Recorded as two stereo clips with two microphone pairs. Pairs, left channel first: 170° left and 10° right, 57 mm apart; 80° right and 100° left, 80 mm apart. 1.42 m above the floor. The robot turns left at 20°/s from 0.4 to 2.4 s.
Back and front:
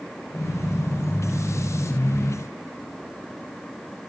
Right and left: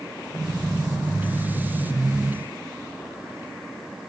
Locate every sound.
Only background noise.